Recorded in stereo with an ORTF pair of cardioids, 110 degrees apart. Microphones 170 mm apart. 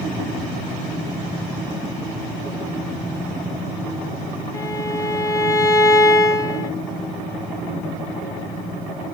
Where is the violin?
20° left, 1.6 m.